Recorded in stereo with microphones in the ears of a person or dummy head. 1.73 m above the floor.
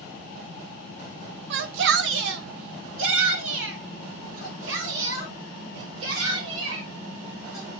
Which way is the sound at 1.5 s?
60° right (ahead or behind).